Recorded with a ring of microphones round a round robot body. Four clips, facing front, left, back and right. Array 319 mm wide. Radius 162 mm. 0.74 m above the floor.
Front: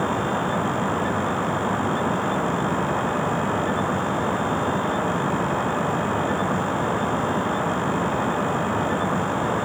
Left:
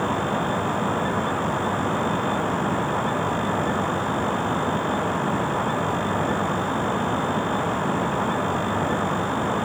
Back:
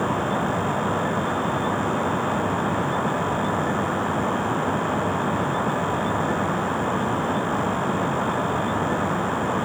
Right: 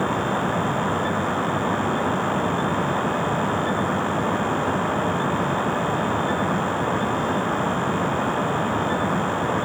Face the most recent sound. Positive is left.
No sound to turn to.